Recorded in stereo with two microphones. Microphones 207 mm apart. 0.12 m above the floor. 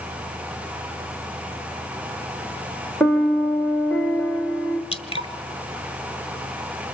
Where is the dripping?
30° left (ahead or behind), 1.0 m.